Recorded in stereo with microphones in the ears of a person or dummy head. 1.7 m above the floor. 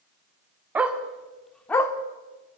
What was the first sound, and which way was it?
A dog barking, 10° right (ahead or behind).